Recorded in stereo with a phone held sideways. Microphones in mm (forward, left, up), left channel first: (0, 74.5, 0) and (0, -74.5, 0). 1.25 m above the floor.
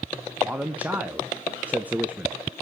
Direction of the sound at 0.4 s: 10° right (ahead or behind).